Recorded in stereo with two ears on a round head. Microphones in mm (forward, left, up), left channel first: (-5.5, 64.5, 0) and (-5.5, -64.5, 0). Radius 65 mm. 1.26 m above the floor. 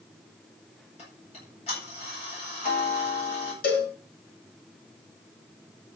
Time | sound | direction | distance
1.0 | ticking | 45° left (ahead or behind) | 8.5 m
3.6 | a cowbell | 75° left (ahead or behind) | 6 m